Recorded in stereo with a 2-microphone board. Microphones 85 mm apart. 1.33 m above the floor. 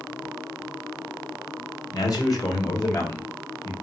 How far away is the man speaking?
About 1.2 m.